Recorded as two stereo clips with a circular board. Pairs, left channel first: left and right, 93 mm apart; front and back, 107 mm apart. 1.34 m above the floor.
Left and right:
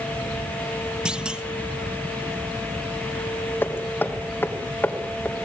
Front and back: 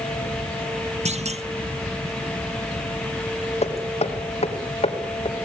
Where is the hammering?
20° left, 3 m.